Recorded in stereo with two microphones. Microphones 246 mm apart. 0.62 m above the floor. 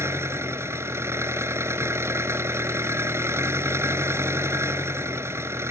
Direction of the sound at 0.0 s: 10° right (ahead or behind).